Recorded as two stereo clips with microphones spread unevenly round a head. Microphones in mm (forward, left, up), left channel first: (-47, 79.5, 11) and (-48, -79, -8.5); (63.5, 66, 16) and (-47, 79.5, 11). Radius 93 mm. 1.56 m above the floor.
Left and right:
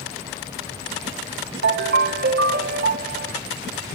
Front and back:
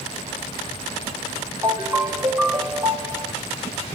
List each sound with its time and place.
1.6 s a ringtone: 105° right, 1.6 m